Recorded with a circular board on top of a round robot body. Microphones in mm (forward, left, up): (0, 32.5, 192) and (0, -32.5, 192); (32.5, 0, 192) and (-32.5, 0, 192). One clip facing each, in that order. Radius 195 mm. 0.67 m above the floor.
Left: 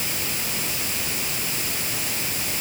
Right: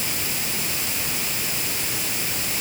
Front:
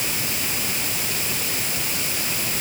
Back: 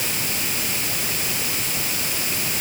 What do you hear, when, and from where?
Only background noise.